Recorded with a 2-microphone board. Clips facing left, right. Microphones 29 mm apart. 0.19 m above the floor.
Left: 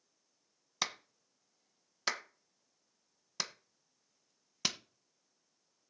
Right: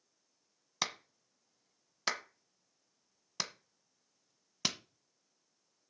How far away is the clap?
About 1.2 m.